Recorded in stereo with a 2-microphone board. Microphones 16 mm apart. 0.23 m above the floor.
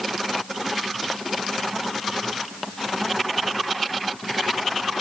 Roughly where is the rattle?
No rattle in this recording.